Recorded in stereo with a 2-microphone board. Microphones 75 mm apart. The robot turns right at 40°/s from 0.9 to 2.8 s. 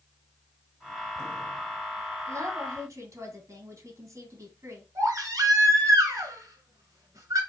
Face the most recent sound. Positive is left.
turn(degrees=-50)  # may be behind; listen again after turning